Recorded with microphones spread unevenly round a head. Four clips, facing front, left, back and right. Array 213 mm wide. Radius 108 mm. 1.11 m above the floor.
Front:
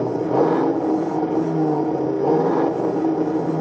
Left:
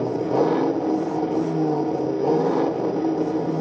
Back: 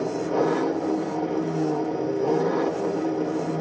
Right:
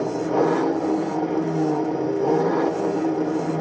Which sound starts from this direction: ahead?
An engine running, at 0.0 s.